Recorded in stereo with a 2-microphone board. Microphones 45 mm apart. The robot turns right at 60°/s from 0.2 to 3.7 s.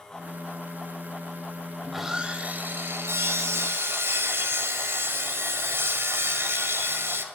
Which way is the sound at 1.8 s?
Straight behind.